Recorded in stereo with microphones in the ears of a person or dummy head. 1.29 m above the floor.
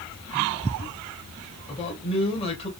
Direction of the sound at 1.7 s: 30° left (ahead or behind).